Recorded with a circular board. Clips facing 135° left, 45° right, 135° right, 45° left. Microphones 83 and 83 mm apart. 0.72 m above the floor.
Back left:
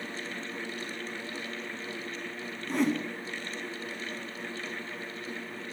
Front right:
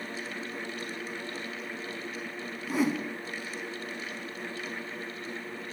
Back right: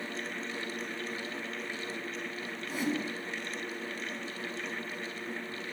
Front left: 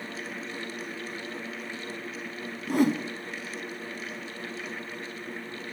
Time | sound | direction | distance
2.7 | a whoosh | 40° left | 1.0 m